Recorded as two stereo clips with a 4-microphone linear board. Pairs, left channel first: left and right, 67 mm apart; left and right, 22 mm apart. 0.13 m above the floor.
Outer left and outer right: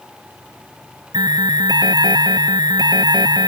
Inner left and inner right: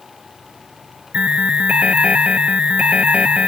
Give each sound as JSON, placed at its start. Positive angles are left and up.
{"t": 1.1, "sound": "an alarm", "side_deg": -85}